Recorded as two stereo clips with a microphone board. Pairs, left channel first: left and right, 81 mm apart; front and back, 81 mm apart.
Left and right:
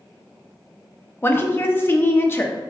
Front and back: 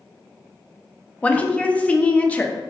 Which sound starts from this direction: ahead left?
A woman speaking, at 1.2 s.